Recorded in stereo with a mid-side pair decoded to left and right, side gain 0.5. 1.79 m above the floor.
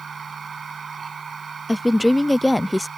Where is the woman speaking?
10° left.